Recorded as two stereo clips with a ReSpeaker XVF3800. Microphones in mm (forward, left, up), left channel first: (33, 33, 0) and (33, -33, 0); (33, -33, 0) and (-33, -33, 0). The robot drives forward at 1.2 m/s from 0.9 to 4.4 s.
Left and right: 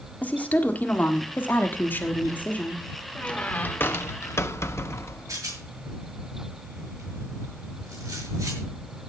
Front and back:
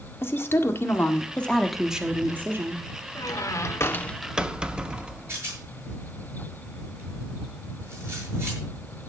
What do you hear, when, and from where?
0.2 s a woman speaking: 35° left, 1.7 m; by 2.8 s 150° left, 1.8 m
3.1 s a squeak: 20° left, 1.5 m; by 5.4 s 110° left, 0.7 m
5.3 s a rattle: 130° right, 8 m